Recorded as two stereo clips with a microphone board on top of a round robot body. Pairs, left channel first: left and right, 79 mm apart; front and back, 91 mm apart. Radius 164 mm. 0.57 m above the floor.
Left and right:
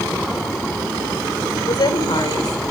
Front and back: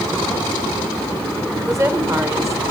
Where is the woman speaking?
125° left, 3 m.